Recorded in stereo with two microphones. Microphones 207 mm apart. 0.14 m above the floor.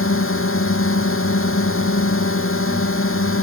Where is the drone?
75° left (ahead or behind).